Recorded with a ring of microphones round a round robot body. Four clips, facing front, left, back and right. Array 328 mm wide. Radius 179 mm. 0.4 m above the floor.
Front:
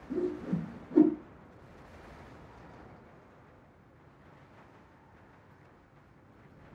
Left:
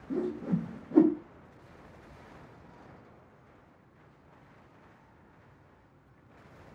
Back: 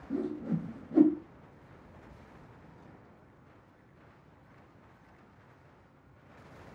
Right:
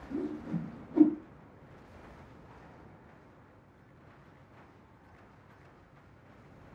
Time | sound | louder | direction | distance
0.1 | a whoosh | left 4 dB, front 1 dB | 85° left | 1.9 m